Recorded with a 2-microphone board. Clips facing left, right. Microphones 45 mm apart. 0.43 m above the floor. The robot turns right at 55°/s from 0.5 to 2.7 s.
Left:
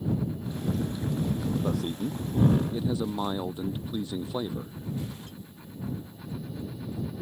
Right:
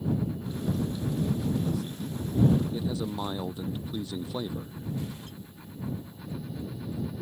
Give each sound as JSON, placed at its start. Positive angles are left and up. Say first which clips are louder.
{"t": 1.6, "sound": "a man speaking", "louder": "left 3 dB", "azimuth_deg": 110}